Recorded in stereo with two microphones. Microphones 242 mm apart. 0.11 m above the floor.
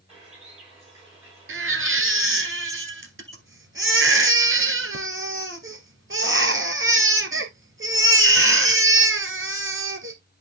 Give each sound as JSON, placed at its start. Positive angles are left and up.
{"t": 0.1, "sound": "a bird", "side_deg": -20, "distance_m": 8.0}
{"t": 1.5, "sound": "a baby crying", "side_deg": -55, "distance_m": 1.3}